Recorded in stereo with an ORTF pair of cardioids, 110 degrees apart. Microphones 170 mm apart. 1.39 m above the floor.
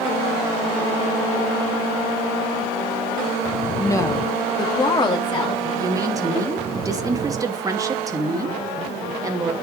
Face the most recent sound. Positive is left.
turn(degrees=-20)